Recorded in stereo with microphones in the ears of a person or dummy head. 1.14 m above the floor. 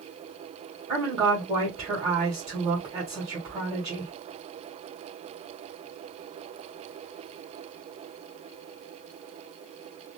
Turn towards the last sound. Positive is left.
turn(degrees=-20)  # may be behind; listen again after turning